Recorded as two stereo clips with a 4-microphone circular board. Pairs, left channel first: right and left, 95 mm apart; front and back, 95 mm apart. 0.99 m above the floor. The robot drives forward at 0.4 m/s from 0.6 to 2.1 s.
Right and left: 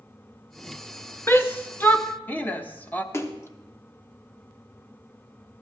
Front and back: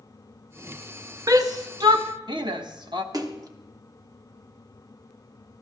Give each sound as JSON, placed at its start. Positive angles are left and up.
{"t": 1.3, "sound": "a shout", "azimuth_deg": -145, "distance_m": 0.8}
{"t": 3.1, "sound": "a splash", "azimuth_deg": -145, "distance_m": 1.0}